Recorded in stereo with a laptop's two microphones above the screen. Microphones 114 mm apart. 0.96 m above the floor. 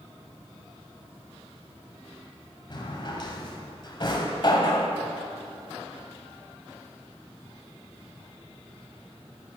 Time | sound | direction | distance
2.7 | a drawer | 45° left (ahead or behind) | 1.6 m